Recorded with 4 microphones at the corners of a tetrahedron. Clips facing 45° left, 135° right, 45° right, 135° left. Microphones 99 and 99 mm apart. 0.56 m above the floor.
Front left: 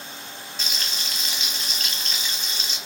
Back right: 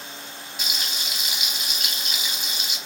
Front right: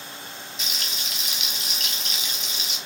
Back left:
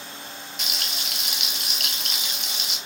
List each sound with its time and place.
0.6 s frying: 150° left, 0.7 m